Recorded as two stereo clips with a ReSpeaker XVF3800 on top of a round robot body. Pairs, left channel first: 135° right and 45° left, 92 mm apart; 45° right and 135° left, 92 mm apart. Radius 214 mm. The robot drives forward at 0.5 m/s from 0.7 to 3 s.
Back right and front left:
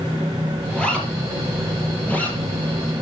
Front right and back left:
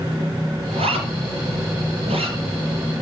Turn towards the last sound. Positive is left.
turn(degrees=150)